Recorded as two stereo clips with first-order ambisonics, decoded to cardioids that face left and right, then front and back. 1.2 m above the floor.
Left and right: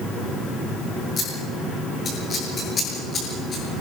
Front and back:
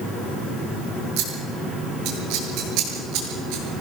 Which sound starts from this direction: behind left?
Scissors, at 1.2 s.